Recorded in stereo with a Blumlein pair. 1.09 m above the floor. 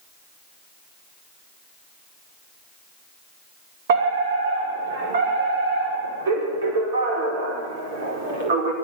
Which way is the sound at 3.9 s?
55° right.